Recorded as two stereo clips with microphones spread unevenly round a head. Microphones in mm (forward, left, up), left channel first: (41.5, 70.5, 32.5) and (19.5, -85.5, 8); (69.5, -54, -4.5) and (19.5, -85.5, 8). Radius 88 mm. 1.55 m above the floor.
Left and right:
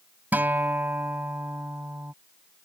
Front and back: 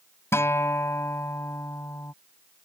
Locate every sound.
0.3 s a guitar: 15° right